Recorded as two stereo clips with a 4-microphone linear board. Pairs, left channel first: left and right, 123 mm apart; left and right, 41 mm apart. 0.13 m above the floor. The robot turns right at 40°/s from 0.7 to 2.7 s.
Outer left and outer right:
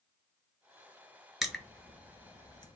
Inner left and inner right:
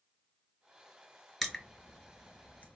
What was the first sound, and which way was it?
Crushing, centre (ahead or behind).